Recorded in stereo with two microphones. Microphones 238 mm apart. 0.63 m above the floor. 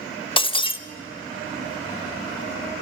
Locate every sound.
0.4 s breaking glass: 20° left (ahead or behind), 0.7 m